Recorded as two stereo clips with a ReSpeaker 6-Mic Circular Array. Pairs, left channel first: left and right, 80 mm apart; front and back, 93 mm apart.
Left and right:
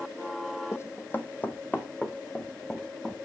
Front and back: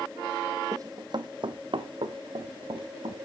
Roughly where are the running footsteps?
Behind left.